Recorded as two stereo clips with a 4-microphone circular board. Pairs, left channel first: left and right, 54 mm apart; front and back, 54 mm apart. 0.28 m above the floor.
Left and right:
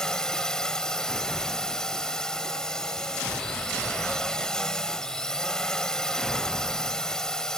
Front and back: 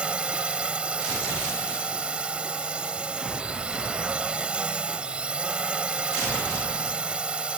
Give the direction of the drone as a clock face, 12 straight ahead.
7 o'clock.